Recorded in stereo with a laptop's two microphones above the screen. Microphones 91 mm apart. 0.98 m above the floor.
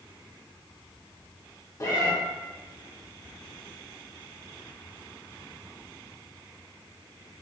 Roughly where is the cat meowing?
Left.